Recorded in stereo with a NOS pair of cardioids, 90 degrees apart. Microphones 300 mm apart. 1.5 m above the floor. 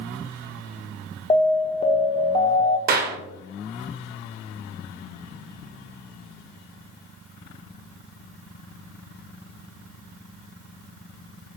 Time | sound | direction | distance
1.3 | an alarm | 20° left | 0.6 m
2.9 | a clap | 30° right | 1.1 m